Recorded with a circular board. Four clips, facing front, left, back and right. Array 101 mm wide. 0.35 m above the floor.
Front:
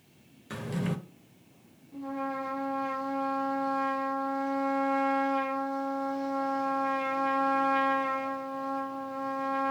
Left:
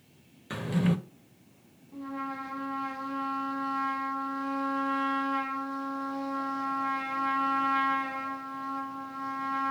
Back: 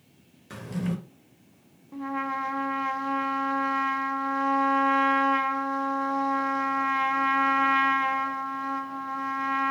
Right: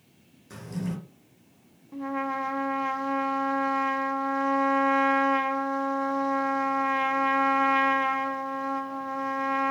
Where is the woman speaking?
No woman speaking in this recording.